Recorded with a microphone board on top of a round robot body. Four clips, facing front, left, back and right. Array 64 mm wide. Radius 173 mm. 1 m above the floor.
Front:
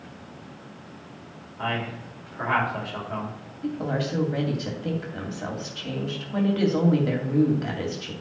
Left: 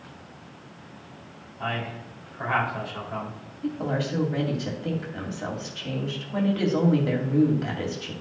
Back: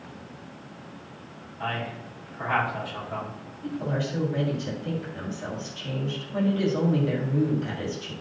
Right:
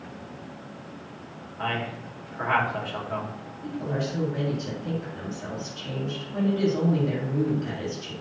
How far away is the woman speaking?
About 2.5 m.